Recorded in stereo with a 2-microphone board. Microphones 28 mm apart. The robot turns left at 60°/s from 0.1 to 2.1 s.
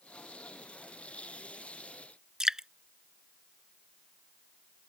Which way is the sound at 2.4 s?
20° right (ahead or behind).